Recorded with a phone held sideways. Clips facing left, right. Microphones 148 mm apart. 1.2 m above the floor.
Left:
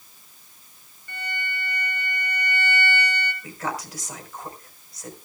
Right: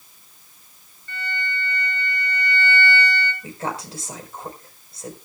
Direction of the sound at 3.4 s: 30° right (ahead or behind).